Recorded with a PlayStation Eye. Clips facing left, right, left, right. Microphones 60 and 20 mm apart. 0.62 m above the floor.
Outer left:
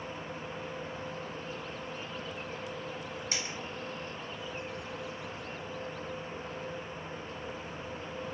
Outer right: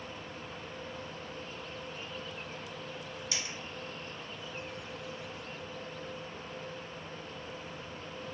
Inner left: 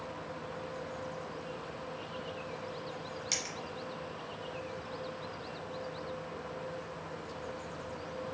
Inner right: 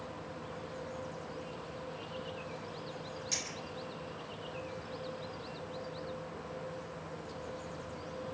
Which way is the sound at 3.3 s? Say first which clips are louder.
Outer left 1 dB, inner left 2 dB; 35° left (ahead or behind).